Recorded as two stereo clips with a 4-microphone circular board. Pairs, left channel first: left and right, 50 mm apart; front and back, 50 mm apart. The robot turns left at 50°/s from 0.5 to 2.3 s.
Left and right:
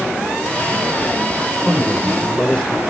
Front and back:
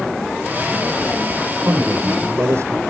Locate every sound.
1.6 s a man speaking: 170° right, 3 m; by 2.8 s 155° left, 3 m